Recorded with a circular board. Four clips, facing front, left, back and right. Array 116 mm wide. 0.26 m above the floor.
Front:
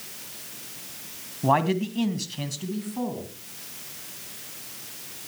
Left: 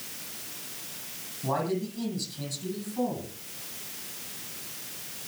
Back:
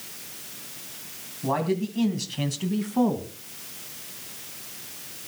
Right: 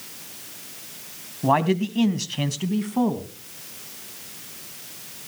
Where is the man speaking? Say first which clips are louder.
Right 9 dB, front 3 dB; 50° right, 1.9 m; by 3.3 s 130° right, 2.5 m.